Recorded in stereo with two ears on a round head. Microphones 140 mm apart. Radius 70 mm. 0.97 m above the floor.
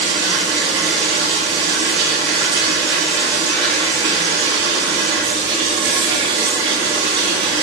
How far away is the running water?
About 2.5 m.